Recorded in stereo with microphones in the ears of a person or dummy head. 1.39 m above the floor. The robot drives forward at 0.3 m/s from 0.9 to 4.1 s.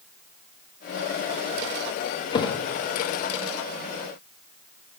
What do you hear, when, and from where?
2.3 s a thud: 30° left (ahead or behind), 0.9 m